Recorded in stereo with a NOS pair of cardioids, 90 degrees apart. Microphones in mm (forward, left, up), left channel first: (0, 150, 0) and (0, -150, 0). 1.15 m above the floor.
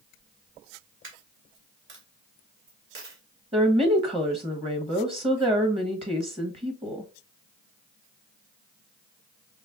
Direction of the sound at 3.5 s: 20° right.